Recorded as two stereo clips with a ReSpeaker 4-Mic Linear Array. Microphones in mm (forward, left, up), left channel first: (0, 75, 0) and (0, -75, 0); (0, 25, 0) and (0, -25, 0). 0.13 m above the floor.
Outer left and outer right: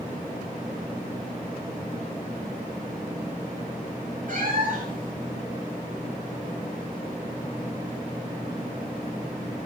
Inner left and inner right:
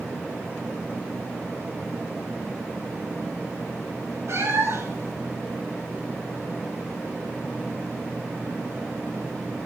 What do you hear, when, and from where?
4.3 s a cat meowing: 65° right (ahead or behind), 6.5 m